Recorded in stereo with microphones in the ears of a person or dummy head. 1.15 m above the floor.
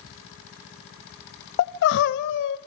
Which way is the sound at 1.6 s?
55° left (ahead or behind).